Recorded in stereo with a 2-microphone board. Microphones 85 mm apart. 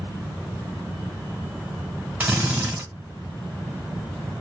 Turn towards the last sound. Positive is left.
turn(degrees=-15)  # may be behind; listen again after turning